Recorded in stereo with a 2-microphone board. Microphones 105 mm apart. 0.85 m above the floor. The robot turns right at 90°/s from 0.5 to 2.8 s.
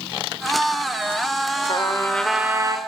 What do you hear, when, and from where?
1.7 s a trumpet: 125° left, 3 m; by 2.8 s 135° right, 3 m